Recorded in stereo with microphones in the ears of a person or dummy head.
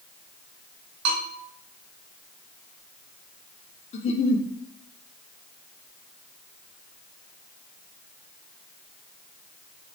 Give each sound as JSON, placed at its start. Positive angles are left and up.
{"t": 1.1, "sound": "a bell", "side_deg": -60, "distance_m": 1.1}
{"t": 3.9, "sound": "a giggle", "side_deg": 40, "distance_m": 0.5}